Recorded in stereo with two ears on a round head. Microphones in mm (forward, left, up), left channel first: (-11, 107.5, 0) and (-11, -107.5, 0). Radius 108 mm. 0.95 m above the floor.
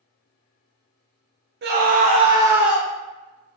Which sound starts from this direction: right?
A scream, at 1.6 s.